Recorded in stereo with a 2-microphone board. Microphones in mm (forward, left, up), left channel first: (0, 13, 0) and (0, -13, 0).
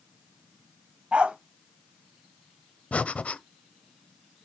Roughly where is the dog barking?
Right.